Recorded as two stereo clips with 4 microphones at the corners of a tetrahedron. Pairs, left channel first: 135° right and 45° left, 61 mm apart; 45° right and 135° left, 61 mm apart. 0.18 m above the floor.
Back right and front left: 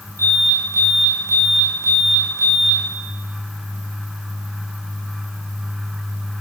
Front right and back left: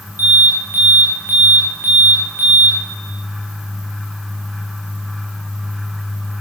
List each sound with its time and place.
0.2 s an alarm: 80° left, 7.5 m